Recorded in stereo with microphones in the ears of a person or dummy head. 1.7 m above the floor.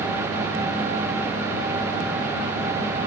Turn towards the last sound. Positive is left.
No sound to turn to.